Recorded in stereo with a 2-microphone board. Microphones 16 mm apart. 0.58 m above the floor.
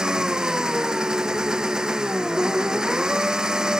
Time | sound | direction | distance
0.0 | an engine running | 55° right (ahead or behind) | ?